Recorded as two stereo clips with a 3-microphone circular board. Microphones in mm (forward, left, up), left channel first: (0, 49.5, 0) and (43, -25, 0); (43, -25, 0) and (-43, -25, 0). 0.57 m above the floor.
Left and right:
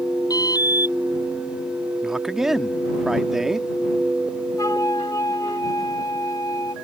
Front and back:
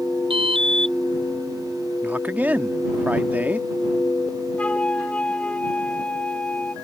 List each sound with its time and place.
0.3 s an alarm: 165° left
2.0 s a man speaking: 140° right
4.6 s a flute: 75° left